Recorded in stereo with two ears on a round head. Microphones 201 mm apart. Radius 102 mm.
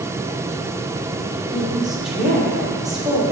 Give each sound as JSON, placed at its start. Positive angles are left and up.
{"t": 1.5, "sound": "a woman speaking", "side_deg": 0, "distance_m": 2.0}